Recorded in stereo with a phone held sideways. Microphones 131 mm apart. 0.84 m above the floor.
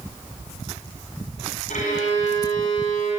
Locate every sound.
1.7 s a violin: 80° left, 5.5 m